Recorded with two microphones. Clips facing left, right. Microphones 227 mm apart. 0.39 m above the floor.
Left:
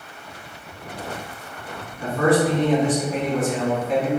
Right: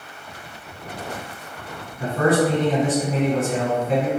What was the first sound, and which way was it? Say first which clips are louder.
A man speaking: even; 40° right (ahead or behind).